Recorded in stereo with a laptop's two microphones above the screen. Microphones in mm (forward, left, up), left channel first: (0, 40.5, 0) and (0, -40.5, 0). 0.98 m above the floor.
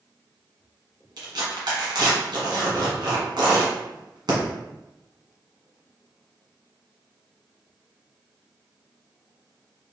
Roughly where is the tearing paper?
Right.